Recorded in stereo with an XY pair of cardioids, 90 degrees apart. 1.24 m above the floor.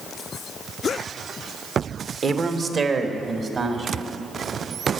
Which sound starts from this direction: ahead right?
A man speaking, at 2.2 s.